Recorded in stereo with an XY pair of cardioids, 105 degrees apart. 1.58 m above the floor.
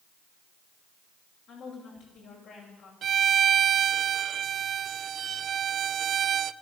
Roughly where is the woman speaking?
Ahead left.